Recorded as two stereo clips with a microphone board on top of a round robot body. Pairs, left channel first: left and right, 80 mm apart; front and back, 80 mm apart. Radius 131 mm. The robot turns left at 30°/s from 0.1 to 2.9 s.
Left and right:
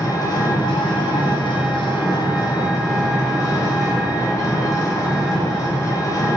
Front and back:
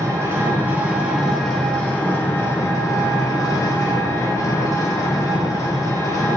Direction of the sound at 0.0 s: 130° left.